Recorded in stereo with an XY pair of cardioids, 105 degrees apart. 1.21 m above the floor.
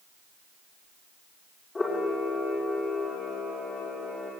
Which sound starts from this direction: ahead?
A camera shutter, at 1.8 s.